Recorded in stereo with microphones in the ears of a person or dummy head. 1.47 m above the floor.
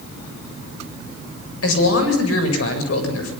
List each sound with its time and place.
1.6 s a man speaking: 80° left, 7.5 m